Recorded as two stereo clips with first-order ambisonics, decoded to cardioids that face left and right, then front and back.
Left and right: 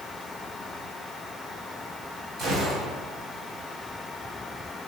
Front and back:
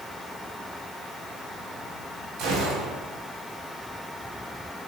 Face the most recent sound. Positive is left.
turn(degrees=-145)